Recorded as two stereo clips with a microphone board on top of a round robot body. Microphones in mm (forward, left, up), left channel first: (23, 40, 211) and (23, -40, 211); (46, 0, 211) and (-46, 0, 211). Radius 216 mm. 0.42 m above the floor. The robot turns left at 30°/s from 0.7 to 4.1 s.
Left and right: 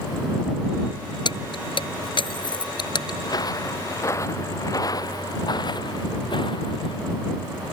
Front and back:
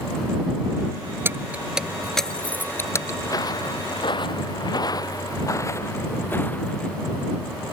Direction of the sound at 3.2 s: 55° left.